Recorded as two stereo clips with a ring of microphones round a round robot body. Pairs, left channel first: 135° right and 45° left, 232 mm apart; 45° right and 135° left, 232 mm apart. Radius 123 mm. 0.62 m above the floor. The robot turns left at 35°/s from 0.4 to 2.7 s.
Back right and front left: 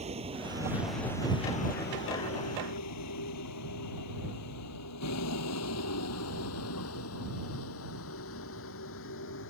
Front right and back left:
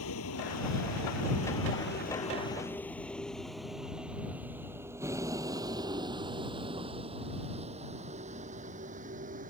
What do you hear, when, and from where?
0.0 s a vehicle: 20° right; by 9.5 s 170° right